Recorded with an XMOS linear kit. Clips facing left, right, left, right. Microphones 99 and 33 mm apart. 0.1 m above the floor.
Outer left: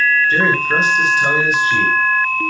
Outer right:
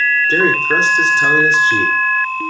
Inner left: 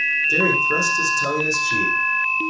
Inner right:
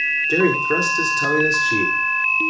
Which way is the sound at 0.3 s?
30° right (ahead or behind).